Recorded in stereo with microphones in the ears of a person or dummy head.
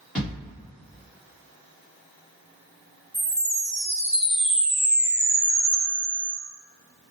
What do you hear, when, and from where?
0.1 s a thud: 5° left (ahead or behind), 1.3 m
3.1 s a chime: 10° left (ahead or behind), 1.0 m